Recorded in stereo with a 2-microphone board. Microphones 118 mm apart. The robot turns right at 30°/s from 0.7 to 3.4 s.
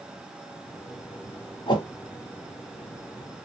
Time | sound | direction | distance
1.7 | a whoosh | 45° left (ahead or behind) | 1.3 m